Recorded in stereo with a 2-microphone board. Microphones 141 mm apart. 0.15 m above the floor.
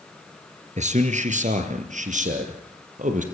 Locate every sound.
0.8 s a man speaking: 60° right (ahead or behind), 3 m; by 3.2 s 65° right (ahead or behind), 4.5 m